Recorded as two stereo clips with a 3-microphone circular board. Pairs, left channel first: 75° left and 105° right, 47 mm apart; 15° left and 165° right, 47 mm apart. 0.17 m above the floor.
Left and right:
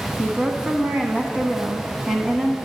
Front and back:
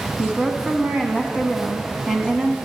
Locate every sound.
0.2 s a woman speaking: 125° right, 1.0 m